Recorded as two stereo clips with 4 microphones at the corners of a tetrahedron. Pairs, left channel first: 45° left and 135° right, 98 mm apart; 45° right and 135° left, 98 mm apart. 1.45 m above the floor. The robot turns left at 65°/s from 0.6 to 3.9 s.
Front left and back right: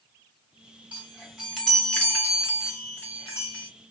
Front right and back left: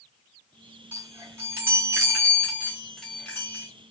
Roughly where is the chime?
Behind.